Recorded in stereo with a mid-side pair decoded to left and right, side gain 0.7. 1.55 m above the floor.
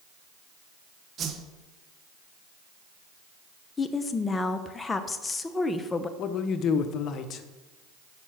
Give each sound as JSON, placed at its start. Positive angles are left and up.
{"t": 1.2, "sound": "a whoosh", "azimuth_deg": -40, "distance_m": 1.6}
{"t": 3.8, "sound": "a woman speaking", "azimuth_deg": 20, "distance_m": 1.2}
{"t": 6.2, "sound": "a man speaking", "azimuth_deg": 45, "distance_m": 1.1}